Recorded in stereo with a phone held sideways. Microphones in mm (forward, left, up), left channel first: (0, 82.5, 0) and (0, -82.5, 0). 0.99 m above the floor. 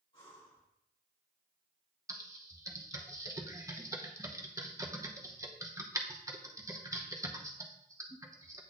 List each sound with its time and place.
0.1 s breathing: 30° left (ahead or behind), 3.5 m
2.1 s typing on a keyboard: 20° right (ahead or behind), 0.8 m